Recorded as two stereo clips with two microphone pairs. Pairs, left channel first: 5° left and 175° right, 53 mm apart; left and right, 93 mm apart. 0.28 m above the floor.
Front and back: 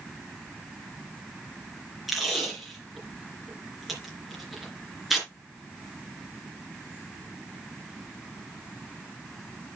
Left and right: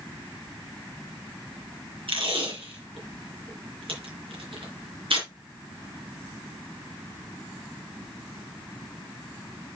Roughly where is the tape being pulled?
Right.